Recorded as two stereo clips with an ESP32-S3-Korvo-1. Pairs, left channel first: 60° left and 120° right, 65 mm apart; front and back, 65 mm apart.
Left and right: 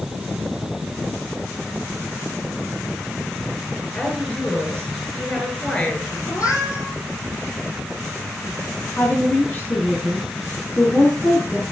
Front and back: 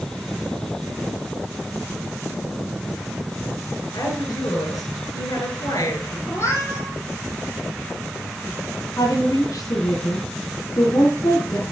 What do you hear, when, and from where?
3.9 s a woman speaking: 5° right, 5.5 m
6.3 s a cat meowing: 40° left, 7 m
9.0 s a woman speaking: 10° left, 4 m